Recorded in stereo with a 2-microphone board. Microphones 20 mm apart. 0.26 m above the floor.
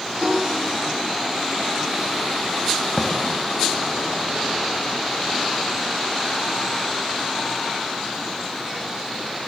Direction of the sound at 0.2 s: 15° right (ahead or behind).